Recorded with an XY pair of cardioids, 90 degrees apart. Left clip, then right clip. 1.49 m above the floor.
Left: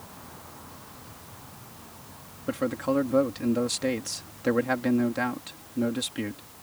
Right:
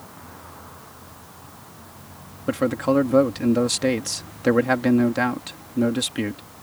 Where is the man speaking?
45° right.